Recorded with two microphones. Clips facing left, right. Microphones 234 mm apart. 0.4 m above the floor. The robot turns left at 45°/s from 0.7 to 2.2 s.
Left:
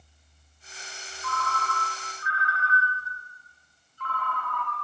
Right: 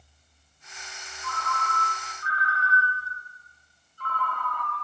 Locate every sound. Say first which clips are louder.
1.2 s a ringtone: left 1 dB; 5° right, 0.6 m; by 4.8 s 50° right, 0.6 m